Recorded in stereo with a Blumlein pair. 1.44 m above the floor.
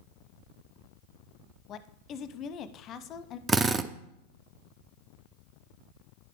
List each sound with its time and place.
1.7 s a woman speaking: 30° left, 0.7 m
3.5 s a drill: 15° right, 0.5 m